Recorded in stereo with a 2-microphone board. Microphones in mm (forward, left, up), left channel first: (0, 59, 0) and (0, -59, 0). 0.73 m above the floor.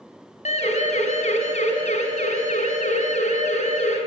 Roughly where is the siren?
Left.